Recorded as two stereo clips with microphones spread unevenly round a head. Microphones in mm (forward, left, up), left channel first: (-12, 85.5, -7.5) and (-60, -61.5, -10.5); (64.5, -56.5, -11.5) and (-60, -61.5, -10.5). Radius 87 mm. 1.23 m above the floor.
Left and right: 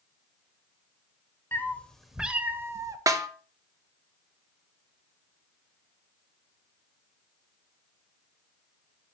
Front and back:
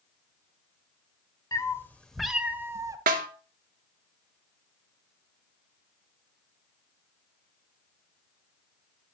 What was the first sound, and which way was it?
A cat meowing, 15° left.